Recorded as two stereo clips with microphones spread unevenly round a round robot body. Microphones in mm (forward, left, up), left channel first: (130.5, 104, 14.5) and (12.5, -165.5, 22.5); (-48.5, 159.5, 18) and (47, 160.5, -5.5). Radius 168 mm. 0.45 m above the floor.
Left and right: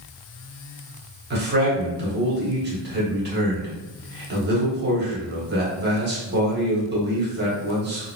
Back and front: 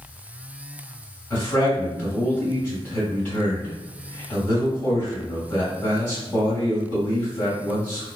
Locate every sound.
1.3 s a man speaking: 100° right, 1.5 m